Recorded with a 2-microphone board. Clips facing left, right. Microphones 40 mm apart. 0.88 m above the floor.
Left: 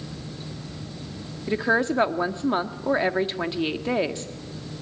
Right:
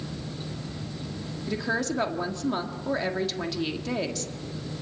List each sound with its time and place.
1.5 s a woman speaking: 30° left (ahead or behind), 1.5 m